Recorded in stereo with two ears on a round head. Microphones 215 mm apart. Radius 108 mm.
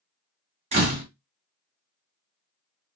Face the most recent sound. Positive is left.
turn(degrees=-25)  # may be behind; listen again after turning